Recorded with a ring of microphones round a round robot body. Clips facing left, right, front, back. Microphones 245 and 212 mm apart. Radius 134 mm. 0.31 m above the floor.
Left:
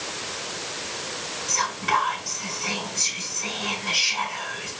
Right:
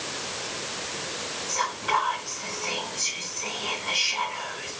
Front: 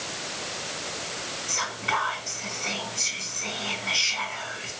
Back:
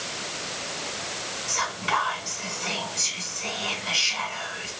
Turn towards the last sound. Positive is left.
turn(degrees=145)